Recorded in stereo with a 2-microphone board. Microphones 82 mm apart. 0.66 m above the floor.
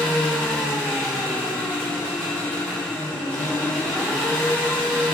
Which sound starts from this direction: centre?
An engine running, at 0.0 s.